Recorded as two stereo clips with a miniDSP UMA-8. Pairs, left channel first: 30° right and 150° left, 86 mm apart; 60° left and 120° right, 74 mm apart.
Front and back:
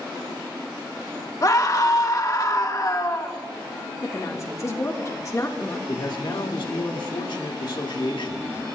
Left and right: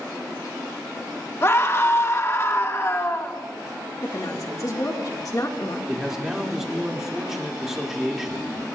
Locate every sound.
1.4 s a scream: 10° left, 1.5 m
4.0 s a woman speaking: 20° left, 1.6 m
5.9 s a man speaking: 35° right, 2 m